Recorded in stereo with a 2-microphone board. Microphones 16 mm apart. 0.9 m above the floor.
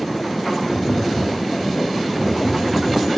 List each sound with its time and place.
0.7 s tapping: 55° left (ahead or behind), 2 m